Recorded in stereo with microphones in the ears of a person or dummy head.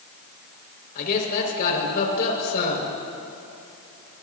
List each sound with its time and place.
0.9 s a man speaking: 60° left (ahead or behind), 5 m